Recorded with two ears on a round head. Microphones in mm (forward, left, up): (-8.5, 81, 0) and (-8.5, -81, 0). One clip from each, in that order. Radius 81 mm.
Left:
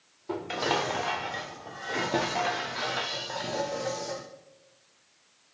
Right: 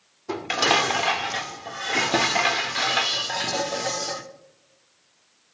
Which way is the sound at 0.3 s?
50° right (ahead or behind).